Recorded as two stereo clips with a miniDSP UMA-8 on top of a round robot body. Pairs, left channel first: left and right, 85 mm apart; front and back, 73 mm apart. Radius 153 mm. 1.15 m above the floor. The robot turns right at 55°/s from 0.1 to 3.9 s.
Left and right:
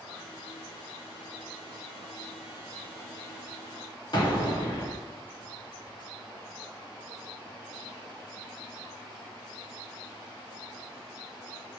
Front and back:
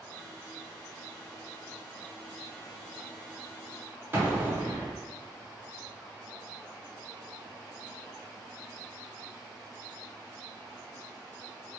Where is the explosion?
120° left, 1.1 m.